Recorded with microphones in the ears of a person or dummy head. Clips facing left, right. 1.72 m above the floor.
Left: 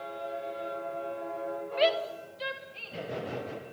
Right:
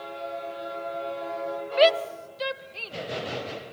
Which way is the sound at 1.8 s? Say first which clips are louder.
Right 7 dB; 70° right (ahead or behind).